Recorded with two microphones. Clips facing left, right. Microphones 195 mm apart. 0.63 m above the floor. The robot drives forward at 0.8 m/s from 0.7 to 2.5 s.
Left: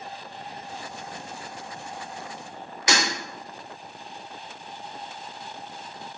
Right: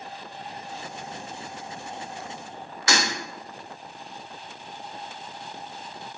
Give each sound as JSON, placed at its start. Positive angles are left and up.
{"t": 2.9, "sound": "breaking glass", "side_deg": 20, "distance_m": 0.7}